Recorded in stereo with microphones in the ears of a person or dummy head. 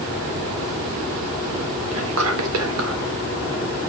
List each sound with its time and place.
1.9 s whispering: 85° right, 1.2 m